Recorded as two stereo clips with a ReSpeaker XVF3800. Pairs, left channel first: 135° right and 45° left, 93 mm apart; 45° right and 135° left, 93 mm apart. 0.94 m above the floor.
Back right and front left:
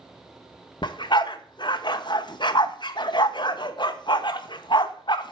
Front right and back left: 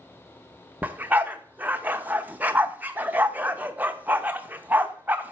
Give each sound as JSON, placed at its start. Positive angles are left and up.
{"t": 0.8, "sound": "a dog barking", "azimuth_deg": -155, "distance_m": 0.7}